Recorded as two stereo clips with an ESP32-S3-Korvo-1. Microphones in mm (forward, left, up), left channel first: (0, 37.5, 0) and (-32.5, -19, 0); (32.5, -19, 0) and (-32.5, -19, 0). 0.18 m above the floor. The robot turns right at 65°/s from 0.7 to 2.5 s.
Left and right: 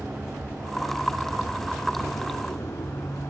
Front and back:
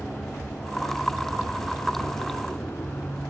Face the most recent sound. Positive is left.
turn(degrees=50)